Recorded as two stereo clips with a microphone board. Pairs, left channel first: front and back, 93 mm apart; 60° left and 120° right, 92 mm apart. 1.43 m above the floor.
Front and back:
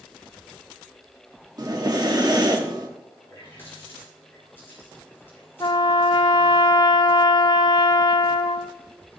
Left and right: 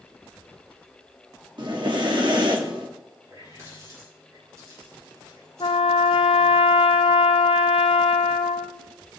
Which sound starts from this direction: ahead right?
A running tap, at 3.2 s.